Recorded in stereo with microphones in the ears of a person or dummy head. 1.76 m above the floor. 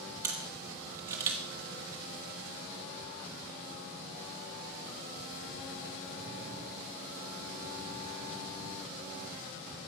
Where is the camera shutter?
15° right (ahead or behind), 1.4 m.